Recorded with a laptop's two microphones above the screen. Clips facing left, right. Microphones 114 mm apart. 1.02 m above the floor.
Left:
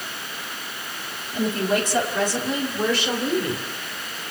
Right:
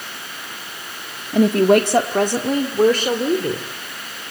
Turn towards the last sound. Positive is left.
turn(degrees=-40)  # may be behind; listen again after turning